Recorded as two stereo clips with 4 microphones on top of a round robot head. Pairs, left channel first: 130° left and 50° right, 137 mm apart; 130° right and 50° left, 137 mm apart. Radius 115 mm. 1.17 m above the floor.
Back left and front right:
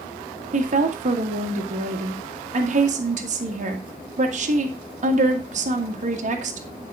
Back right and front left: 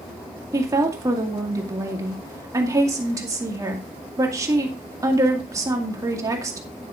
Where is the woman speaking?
15° right, 1.9 m.